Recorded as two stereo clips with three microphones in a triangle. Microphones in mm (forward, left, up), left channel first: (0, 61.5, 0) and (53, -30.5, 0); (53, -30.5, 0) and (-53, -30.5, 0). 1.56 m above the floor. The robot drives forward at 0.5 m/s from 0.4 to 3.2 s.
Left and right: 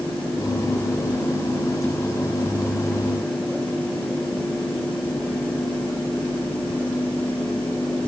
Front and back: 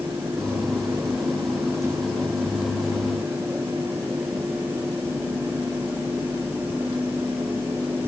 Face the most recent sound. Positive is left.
No sound to turn to.